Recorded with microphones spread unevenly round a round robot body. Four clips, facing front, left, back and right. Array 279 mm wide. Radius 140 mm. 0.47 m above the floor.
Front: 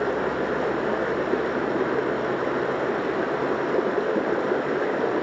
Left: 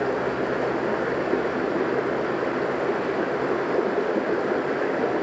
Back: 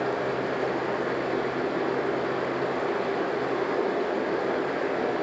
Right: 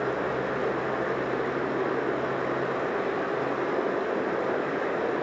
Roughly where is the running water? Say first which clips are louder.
Left 3 dB, front 3 dB; ahead left.